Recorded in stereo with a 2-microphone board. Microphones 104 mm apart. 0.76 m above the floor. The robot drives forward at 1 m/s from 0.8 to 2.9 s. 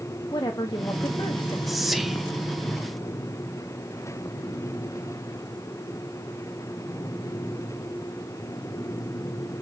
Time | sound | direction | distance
0.3 | a woman speaking | 35° left (ahead or behind) | 1.3 m
1.7 | whispering | centre (ahead or behind) | 1.5 m